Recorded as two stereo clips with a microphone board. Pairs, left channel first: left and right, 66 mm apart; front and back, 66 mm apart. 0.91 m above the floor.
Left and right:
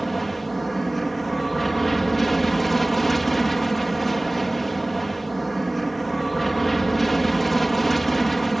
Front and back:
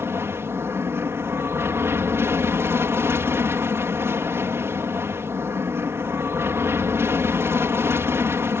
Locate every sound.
0.0 s an aircraft: 175° left